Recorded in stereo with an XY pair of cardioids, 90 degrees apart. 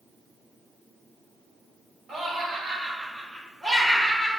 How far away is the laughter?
About 1.3 m.